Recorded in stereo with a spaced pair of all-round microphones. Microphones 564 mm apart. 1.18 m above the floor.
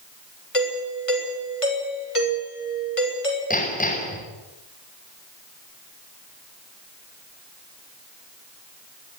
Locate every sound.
0.5 s a doorbell: 65° left (ahead or behind), 7.5 m
3.5 s hammering: 15° left (ahead or behind), 6.5 m